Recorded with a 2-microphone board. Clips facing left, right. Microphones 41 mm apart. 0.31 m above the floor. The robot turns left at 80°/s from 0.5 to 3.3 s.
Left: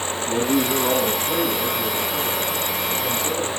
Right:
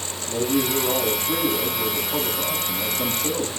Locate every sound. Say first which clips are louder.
0.3 s a man speaking: left 2 dB; 90° left, 8.5 m; by 3.6 s 130° right, 8.5 m